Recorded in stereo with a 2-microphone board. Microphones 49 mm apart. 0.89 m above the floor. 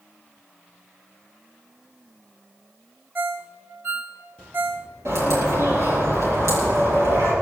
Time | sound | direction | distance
3.1 | a ringtone | 40° right (ahead or behind) | 0.8 m
5.0 | a bird | 75° right (ahead or behind) | 7.5 m